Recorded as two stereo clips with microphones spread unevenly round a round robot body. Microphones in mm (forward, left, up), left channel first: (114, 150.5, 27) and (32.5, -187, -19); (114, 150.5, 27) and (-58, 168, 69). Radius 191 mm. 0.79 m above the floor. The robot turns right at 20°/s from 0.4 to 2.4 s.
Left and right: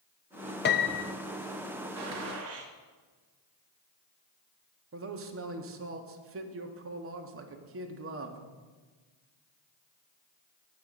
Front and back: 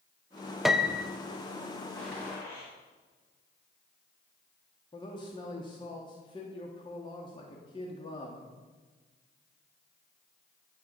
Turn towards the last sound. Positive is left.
turn(degrees=-60)